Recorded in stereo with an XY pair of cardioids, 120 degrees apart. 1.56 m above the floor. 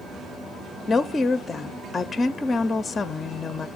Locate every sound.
0.9 s a woman speaking: 25° left, 0.5 m